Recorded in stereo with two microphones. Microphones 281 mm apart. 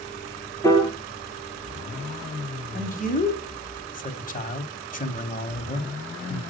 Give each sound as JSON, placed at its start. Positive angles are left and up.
{"t": 0.6, "sound": "a piano", "side_deg": 10, "distance_m": 2.5}
{"t": 2.7, "sound": "a man speaking", "side_deg": 30, "distance_m": 1.7}